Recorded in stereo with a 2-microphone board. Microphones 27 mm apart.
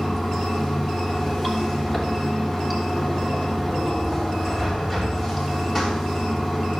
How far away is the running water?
About 3 m.